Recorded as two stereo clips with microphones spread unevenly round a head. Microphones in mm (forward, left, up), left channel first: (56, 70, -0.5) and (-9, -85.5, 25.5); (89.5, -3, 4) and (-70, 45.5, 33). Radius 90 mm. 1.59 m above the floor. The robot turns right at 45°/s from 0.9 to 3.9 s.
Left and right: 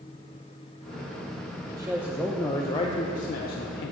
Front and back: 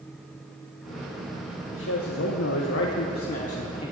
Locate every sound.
1.7 s a man speaking: 45° right, 1.1 m; by 3.9 s 50° left, 1.1 m